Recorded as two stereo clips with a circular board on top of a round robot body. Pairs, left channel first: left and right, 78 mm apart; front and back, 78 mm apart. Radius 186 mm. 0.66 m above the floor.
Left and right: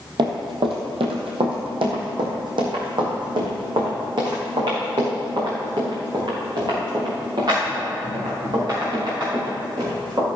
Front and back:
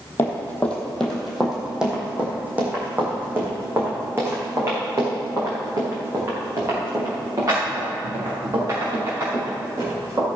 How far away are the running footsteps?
About 1.6 m.